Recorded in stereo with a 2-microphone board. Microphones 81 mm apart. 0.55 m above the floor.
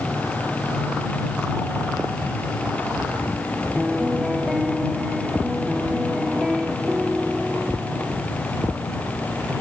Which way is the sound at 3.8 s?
5° right (ahead or behind).